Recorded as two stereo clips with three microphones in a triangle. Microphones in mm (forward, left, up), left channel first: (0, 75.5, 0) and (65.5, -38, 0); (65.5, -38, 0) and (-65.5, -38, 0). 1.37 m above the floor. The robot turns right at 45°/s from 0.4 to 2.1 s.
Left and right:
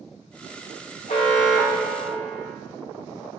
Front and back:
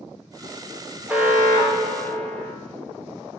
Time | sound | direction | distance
1.1 | an alarm | 100° left | 1.8 m